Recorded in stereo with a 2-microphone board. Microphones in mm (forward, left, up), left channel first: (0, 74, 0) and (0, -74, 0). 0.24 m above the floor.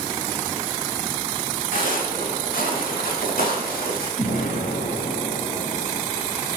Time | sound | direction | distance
1.7 | footsteps | 70° left (ahead or behind) | 5 m
4.2 | an explosion | 75° left (ahead or behind) | 4 m